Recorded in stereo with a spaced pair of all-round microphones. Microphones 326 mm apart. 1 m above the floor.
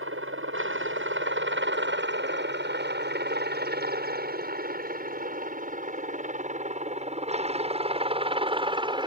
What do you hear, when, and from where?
0.0 s a helicopter: 40° right (ahead or behind); by 9.1 s 15° right (ahead or behind)